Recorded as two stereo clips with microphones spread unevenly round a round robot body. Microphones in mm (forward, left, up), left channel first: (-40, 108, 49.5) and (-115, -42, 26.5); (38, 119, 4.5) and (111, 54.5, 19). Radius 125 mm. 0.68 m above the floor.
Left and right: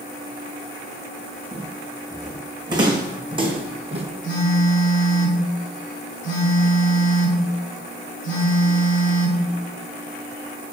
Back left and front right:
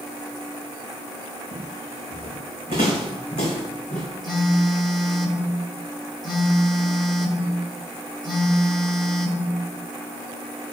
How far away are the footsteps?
About 3.5 m.